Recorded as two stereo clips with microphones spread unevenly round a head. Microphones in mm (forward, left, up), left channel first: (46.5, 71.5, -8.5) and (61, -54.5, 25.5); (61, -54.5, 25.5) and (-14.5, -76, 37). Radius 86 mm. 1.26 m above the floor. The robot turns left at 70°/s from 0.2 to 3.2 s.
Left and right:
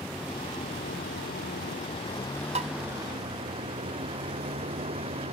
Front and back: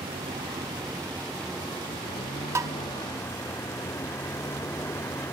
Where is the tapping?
120° right; by 2.7 s 130° right.